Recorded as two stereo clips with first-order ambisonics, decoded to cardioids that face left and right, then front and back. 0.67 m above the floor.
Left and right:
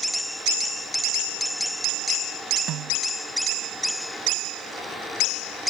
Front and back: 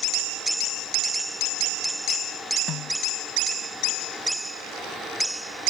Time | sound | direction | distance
2.7 | a snare drum | 50° right | ?